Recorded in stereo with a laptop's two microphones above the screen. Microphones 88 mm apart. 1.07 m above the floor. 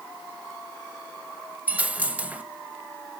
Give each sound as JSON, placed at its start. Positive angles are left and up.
{"t": 1.7, "sound": "a dropped coin", "side_deg": -15, "distance_m": 1.0}